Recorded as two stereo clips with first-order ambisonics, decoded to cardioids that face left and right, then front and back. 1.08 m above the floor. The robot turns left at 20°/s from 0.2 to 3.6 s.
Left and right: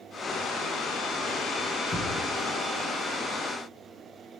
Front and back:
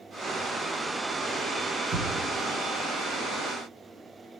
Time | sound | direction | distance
1.9 | a thud | 155° left | 1.2 m